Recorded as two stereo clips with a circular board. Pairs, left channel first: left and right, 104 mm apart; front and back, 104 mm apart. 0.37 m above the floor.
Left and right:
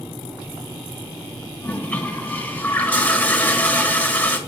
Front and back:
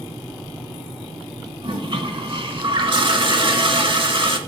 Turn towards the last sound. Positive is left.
turn(degrees=160)